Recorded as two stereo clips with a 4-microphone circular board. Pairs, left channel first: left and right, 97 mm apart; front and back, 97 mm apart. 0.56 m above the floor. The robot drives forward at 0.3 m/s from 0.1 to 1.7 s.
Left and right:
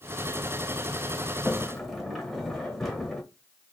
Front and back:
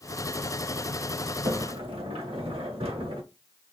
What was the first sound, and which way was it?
A sliding door, straight behind.